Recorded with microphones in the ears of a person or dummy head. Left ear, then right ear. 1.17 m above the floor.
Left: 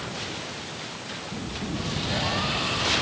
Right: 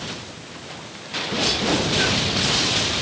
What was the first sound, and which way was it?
Only background noise.